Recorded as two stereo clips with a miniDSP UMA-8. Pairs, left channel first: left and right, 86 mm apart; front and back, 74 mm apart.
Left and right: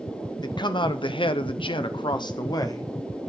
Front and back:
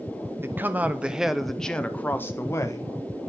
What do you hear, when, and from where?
0.4 s a man speaking: 125° left, 1.0 m; by 2.9 s 40° left, 1.2 m